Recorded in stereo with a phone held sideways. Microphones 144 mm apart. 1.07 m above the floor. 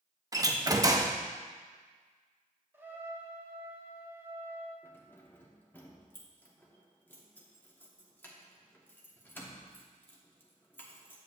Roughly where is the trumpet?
Centre.